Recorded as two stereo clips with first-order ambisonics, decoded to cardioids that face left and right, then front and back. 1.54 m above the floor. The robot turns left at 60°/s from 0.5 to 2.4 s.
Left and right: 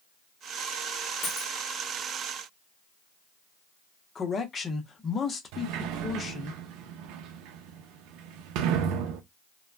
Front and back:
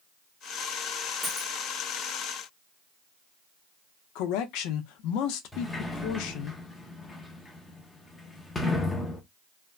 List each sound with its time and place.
1.2 s a dropped coin: 85° left, 1.1 m; by 1.5 s 65° left, 1.1 m
4.2 s a man speaking: 20° left, 0.6 m
5.5 s a sliding door: 80° right, 0.6 m